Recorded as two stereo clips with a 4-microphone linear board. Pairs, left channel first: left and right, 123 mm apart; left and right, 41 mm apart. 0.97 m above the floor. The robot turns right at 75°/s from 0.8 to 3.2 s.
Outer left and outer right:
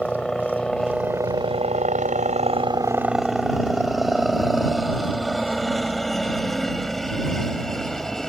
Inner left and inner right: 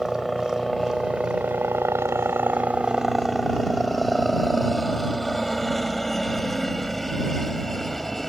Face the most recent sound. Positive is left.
turn(degrees=5)  # may be behind; listen again after turning